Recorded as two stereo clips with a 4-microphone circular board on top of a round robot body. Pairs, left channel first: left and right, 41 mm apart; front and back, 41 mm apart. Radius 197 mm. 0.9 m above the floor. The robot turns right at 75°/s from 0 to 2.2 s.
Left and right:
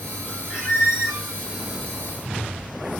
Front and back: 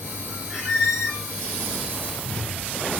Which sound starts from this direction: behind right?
A squeak, at 0.5 s.